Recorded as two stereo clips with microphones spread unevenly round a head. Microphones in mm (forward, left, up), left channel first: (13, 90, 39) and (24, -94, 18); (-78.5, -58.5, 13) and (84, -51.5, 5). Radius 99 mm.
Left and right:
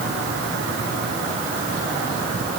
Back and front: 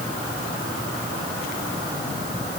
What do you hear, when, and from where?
Only background noise.